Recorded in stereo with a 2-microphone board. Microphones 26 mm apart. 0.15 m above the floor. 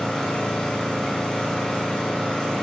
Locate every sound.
0.0 s an engine running: 40° left (ahead or behind), 4 m